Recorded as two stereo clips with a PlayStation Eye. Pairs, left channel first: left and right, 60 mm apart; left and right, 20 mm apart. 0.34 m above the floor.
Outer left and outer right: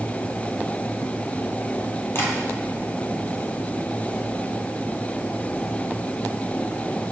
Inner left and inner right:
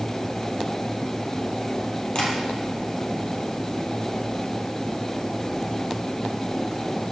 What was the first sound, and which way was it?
Tapping, 45° left (ahead or behind).